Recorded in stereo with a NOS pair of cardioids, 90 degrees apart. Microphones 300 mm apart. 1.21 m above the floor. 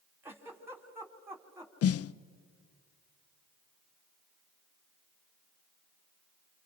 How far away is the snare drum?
About 0.6 m.